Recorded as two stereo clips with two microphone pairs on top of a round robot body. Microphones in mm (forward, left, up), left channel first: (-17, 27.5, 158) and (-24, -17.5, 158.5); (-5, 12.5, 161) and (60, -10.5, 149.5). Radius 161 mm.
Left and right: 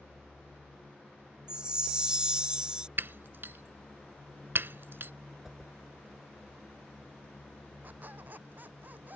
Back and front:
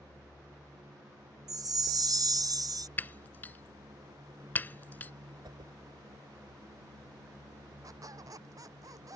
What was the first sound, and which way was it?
A chime, 30° right.